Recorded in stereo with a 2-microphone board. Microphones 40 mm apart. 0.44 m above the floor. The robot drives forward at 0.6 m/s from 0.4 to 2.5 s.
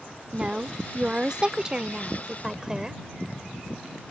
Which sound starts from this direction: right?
A woman speaking, at 0.3 s.